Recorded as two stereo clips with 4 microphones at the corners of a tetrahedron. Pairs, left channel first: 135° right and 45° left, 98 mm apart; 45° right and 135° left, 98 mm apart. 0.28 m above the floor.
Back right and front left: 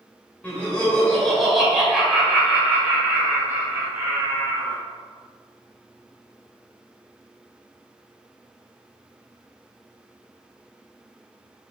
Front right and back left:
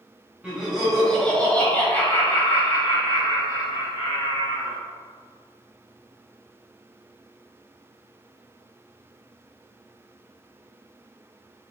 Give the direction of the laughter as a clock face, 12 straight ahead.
6 o'clock.